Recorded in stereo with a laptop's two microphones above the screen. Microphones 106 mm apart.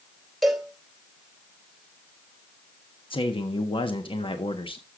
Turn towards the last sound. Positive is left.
turn(degrees=55)  # may be behind; listen again after turning